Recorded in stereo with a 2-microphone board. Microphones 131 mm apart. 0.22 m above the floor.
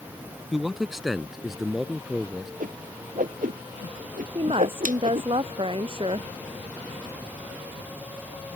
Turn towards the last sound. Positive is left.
turn(degrees=-45)  # may be behind; listen again after turning